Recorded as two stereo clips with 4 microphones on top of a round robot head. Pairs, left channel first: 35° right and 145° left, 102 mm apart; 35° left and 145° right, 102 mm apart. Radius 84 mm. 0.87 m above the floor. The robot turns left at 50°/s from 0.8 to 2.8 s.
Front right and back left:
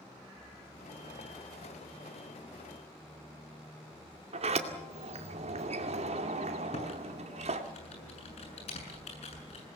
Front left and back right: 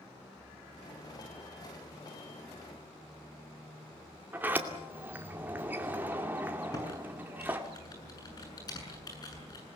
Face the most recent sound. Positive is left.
turn(degrees=-15)